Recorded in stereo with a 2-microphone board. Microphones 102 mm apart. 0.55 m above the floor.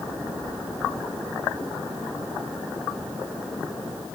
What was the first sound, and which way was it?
Only background noise.